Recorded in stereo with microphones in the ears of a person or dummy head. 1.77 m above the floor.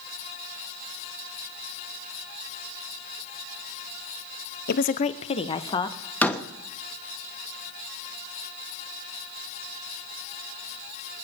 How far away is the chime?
No chime in this recording.